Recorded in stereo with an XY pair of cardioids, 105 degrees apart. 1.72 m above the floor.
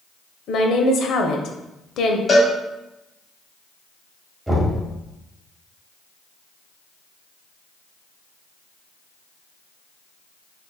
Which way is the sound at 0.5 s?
65° left.